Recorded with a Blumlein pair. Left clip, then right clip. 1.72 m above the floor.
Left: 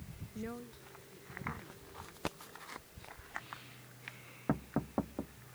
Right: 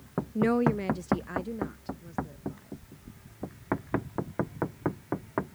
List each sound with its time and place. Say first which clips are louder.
0.3 s a woman speaking: right 20 dB; 55° right; by 2.7 s 30° right